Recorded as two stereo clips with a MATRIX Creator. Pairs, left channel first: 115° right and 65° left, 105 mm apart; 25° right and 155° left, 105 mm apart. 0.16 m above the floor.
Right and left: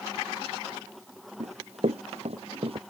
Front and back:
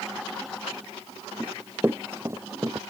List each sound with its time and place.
1.4 s running footsteps: 85° left; by 2.8 s 100° left